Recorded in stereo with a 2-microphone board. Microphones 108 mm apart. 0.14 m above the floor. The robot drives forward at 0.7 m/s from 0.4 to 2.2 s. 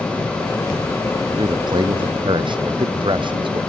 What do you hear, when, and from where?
1.4 s a man speaking: 45° right (ahead or behind); by 3.6 s 50° right (ahead or behind)